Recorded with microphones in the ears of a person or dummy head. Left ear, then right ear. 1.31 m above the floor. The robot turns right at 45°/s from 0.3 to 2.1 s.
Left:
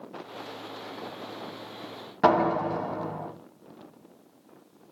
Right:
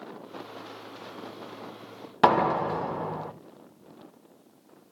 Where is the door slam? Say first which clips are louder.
Right 1 dB; 35° right (ahead or behind), 0.6 m.